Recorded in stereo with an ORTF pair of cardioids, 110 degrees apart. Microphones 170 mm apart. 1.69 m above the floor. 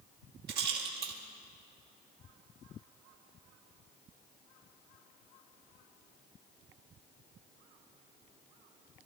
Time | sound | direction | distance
0.5 | a rattle | 70° right | 2.5 m